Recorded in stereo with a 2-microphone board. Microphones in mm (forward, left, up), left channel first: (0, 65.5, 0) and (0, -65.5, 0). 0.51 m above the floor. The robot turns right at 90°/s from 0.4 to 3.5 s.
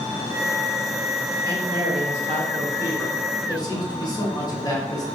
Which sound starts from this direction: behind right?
A man speaking, at 1.4 s.